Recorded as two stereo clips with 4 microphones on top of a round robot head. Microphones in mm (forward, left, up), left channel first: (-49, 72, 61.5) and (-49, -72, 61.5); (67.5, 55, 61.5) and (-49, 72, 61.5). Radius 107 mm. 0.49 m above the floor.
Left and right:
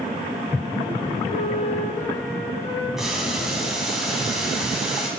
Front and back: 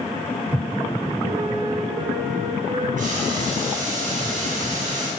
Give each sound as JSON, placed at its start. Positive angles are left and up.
{"t": 1.3, "sound": "a flute", "azimuth_deg": 140, "distance_m": 6.0}
{"t": 3.0, "sound": "boiling", "azimuth_deg": -175, "distance_m": 3.0}